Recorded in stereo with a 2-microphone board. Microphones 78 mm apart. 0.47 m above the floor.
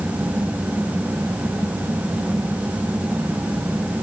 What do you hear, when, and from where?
Only background noise.